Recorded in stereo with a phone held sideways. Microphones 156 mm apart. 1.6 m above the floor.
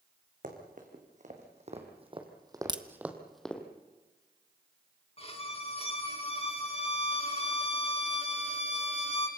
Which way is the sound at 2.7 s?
30° right (ahead or behind).